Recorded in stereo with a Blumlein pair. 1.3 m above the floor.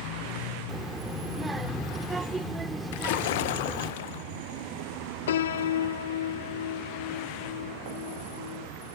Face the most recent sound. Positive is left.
turn(degrees=60)